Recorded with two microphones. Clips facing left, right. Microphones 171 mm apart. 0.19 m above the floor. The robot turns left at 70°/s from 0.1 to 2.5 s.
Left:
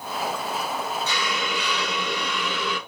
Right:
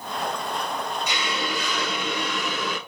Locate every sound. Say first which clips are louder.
1.1 s a hiss: even; 20° right, 1.2 m; by 2.8 s 120° right, 1.2 m